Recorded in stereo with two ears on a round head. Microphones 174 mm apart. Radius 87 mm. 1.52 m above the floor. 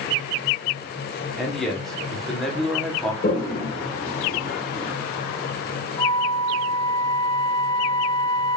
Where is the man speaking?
Centre (ahead or behind), 1.0 m.